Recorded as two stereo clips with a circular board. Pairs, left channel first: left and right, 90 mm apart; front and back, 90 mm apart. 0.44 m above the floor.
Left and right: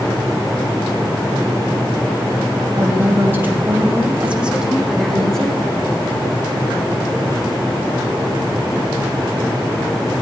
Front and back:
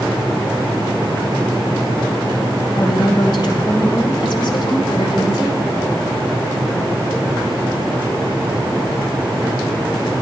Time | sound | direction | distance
2.8 | a woman speaking | 30° right | 2.5 m